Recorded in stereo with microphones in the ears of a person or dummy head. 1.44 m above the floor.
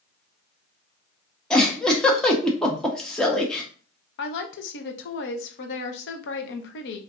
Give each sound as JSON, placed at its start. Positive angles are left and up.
{"t": 1.5, "sound": "a giggle", "side_deg": 5, "distance_m": 0.9}
{"t": 4.2, "sound": "a woman speaking", "side_deg": 65, "distance_m": 0.8}